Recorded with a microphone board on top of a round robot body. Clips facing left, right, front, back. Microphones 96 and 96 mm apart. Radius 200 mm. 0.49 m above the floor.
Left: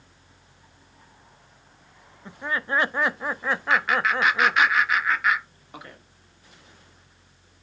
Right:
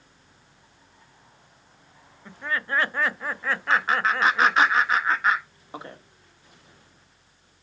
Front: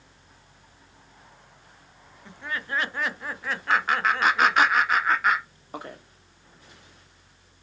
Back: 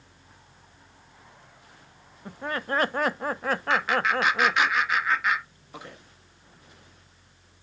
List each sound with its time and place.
2.2 s laughter: 155° left, 1.0 m
3.7 s laughter: 40° right, 1.9 m